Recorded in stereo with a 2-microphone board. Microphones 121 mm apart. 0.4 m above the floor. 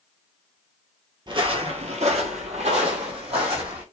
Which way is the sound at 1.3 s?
35° right (ahead or behind).